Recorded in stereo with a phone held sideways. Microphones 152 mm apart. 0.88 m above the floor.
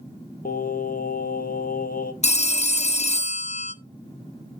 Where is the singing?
75° left (ahead or behind), 0.8 m.